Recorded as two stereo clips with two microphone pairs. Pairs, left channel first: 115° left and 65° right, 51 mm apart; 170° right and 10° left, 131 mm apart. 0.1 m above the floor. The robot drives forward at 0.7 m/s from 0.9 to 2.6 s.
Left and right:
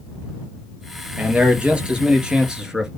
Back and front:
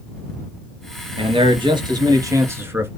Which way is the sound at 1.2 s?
5° right.